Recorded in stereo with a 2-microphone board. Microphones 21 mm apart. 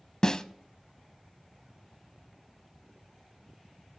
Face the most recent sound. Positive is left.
turn(degrees=35)  # may be behind; listen again after turning